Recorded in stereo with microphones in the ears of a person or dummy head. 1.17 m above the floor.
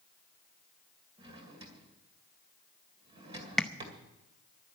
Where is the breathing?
No breathing in this recording.